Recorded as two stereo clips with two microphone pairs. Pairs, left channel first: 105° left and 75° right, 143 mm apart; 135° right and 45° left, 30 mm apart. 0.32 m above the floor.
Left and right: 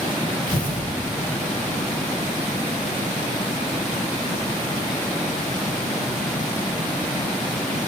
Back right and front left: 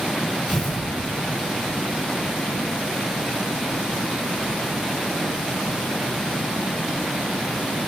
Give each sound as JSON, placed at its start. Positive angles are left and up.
{"t": 0.5, "sound": "tearing paper", "azimuth_deg": 90, "distance_m": 10.0}